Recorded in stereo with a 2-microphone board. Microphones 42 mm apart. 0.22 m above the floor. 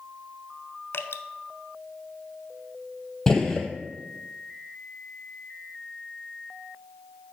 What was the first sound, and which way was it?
Dripping, 65° left (ahead or behind).